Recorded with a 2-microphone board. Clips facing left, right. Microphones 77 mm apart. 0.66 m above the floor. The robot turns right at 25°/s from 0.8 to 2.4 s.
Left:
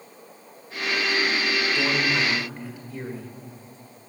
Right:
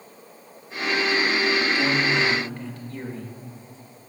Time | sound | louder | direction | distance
1.8 | a man speaking | right 2 dB | 25° left (ahead or behind) | 2 m